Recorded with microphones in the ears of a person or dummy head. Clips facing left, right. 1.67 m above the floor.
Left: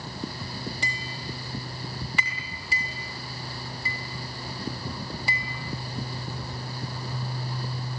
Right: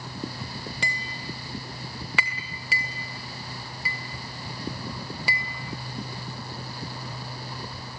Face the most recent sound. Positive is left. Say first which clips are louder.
# even
turn(degrees=-55)  # may be behind; listen again after turning